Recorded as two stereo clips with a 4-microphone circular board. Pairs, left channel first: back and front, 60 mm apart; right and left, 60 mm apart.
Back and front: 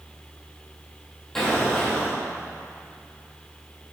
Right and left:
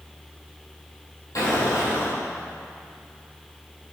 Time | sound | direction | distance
1.4 | an explosion | 95° right | 2 m